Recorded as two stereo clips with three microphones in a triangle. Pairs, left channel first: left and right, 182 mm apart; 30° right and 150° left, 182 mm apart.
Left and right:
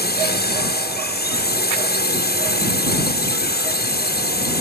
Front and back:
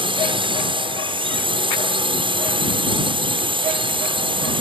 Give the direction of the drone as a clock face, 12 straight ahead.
9 o'clock.